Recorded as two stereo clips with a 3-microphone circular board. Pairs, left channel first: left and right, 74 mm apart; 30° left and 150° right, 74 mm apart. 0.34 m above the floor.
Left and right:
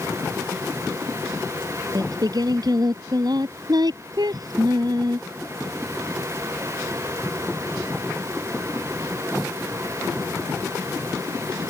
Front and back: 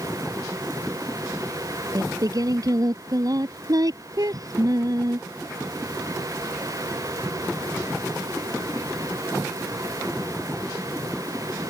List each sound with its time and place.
1.9 s singing: 115° right